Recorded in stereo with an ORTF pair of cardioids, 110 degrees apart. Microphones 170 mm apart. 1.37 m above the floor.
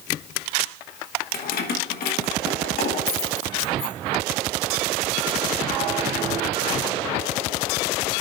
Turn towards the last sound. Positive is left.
turn(degrees=65)